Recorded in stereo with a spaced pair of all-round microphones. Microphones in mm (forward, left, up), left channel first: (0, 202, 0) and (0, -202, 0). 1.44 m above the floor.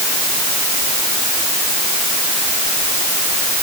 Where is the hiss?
I don't hear a hiss.